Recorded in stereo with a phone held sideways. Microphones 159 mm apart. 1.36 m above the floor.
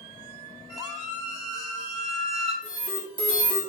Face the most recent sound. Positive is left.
turn(degrees=55)  # may be behind; listen again after turning